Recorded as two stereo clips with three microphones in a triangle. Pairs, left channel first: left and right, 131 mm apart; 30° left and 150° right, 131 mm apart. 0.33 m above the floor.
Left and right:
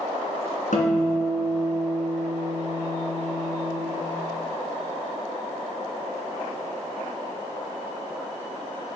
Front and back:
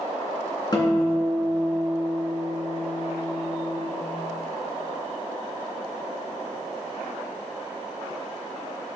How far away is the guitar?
About 2.5 m.